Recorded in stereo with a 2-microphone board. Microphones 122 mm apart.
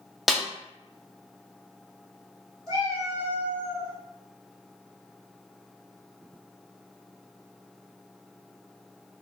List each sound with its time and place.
0.3 s a snare drum: centre (ahead or behind), 0.6 m
2.7 s a cat meowing: 30° right (ahead or behind), 1.4 m